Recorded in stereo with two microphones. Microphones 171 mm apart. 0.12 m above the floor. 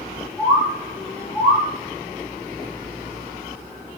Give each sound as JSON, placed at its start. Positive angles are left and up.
{"t": 0.4, "sound": "a bird", "side_deg": 10, "distance_m": 4.0}